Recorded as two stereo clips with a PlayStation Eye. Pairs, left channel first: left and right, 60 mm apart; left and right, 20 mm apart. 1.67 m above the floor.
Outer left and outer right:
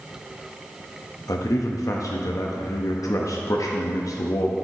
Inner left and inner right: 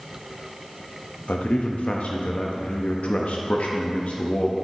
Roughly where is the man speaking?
Left.